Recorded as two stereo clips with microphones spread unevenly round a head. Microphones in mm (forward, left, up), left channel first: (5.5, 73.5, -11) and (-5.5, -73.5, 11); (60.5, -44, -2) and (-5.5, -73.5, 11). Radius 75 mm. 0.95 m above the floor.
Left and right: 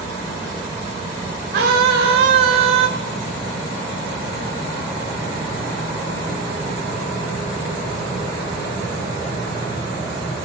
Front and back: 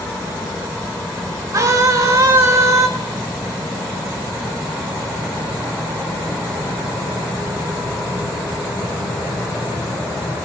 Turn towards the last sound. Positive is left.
turn(degrees=-115)